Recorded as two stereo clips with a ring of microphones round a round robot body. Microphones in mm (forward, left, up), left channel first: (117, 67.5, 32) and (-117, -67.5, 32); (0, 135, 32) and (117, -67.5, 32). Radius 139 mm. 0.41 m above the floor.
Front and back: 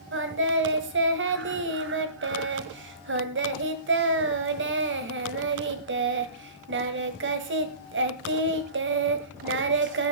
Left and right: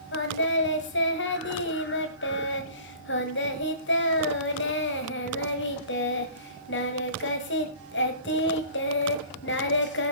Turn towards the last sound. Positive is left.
turn(degrees=165)